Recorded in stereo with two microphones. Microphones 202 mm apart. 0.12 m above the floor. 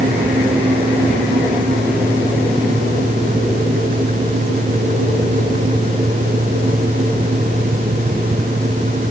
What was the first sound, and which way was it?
Only background noise.